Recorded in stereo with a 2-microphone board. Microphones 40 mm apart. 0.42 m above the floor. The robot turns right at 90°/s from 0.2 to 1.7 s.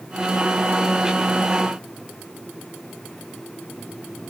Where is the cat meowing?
No cat meowing in this recording.